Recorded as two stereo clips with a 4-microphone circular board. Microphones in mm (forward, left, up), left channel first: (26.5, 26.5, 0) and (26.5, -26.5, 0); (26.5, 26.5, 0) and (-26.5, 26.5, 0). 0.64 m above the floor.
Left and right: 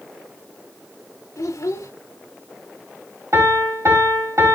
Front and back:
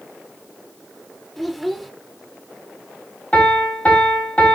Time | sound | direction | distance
1.4 | a child speaking | 90° left | 1.1 m
3.3 | a piano | 65° right | 4 m